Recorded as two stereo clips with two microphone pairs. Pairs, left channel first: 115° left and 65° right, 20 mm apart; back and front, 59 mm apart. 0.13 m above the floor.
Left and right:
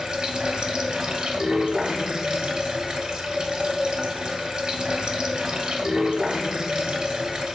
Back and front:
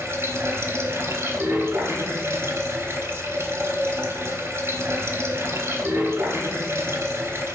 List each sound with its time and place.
0.0 s running water: 30° right, 0.7 m